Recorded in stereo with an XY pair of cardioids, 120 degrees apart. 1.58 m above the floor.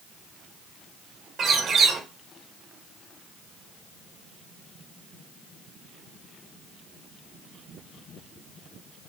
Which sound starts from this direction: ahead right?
A bird, at 1.4 s.